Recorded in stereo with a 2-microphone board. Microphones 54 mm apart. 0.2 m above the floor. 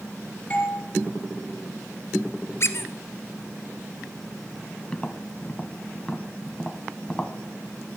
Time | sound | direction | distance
0.5 | a doorbell | 30° left (ahead or behind) | 4 m
2.6 | a squeak | 55° left (ahead or behind) | 0.8 m
4.9 | tapping | 20° left (ahead or behind) | 0.9 m